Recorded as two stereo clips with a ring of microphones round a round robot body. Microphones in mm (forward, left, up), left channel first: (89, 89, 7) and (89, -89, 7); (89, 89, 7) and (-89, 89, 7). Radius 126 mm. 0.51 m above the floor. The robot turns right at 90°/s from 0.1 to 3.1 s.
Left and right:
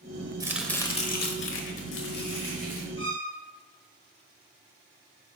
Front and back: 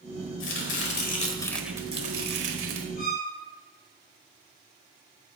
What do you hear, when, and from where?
0.4 s chopping: 20° right, 1.1 m; by 2.9 s 160° right, 1.1 m
3.0 s a violin: 30° left, 2.5 m; by 3.3 s 40° left, 2.5 m